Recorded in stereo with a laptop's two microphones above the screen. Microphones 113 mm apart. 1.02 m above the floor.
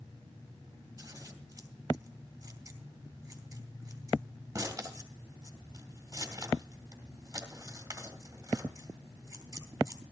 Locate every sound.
1.0 s scissors: 25° right (ahead or behind), 2.5 m